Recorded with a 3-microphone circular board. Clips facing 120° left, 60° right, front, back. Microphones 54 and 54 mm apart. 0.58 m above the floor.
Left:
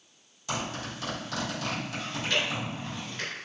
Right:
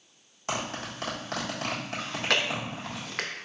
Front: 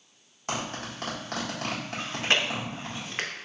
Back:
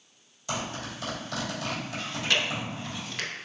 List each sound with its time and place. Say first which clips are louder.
0.5 s a zipper: right 1 dB, even; 25° right, 1.3 m
2.0 s chewing: right 3 dB, front 2 dB; 60° right, 0.6 m